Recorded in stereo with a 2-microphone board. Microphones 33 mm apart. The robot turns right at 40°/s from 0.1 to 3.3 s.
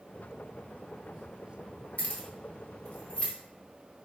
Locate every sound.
2.0 s keys jangling: 40° left (ahead or behind), 0.6 m; by 3.3 s 30° left (ahead or behind), 0.6 m